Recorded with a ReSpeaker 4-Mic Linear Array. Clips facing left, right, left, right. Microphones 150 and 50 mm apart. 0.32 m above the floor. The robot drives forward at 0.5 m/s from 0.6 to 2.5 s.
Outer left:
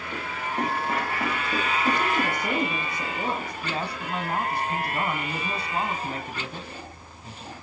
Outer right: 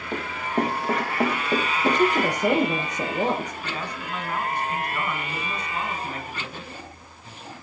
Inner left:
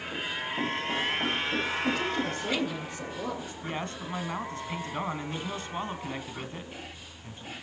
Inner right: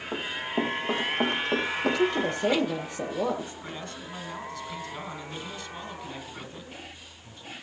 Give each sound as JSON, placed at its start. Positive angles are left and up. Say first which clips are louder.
{"t": 0.1, "sound": "running footsteps", "louder": "outer right 5 dB, inner right 4 dB", "side_deg": -70, "distance_m": 7.5}
{"t": 1.8, "sound": "a woman speaking", "louder": "outer right 7 dB, inner right 4 dB", "side_deg": -85, "distance_m": 8.0}
{"t": 3.6, "sound": "a man speaking", "louder": "outer left 2 dB, inner left 4 dB", "side_deg": 35, "distance_m": 2.5}